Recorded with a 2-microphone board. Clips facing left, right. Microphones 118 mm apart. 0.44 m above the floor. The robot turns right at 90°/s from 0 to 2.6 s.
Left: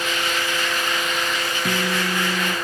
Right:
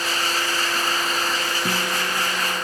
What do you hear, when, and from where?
1.6 s a guitar: 5° right, 1.6 m; by 2.6 s 75° left, 1.6 m